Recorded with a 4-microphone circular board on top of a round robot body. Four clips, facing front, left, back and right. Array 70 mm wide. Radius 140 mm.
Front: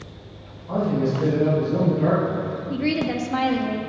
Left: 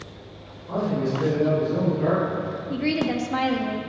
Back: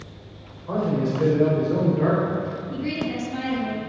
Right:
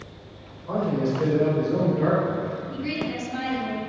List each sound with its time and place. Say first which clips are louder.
0.7 s a man speaking: right 1 dB, front 1 dB; 150° right, 4.5 m; by 2.6 s 155° right, 3 m
2.7 s a woman speaking: left 5 dB, front 6 dB; 45° left, 1.6 m